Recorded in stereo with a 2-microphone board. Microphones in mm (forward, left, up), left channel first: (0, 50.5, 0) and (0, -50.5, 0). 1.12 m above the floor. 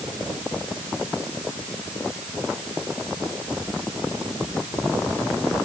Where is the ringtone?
No ringtone in this recording.